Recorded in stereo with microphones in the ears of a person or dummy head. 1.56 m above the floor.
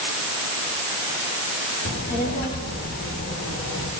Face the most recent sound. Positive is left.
turn(degrees=65)  # may be behind; listen again after turning